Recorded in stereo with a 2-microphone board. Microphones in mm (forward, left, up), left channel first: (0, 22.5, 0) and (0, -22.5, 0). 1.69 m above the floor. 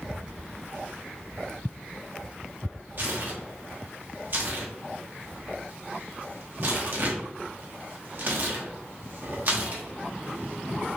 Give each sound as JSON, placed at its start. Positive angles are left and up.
{"t": 3.0, "sound": "tearing paper", "side_deg": -45, "distance_m": 0.8}